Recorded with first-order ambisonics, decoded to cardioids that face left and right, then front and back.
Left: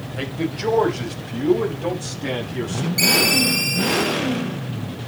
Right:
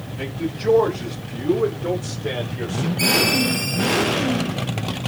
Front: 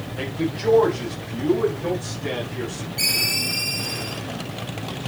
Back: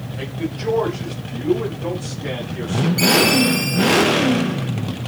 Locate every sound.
0.2 s a man speaking: 80° left, 5.5 m; by 2.9 s 100° left, 8.5 m
3.0 s a ringtone: 110° left, 4.5 m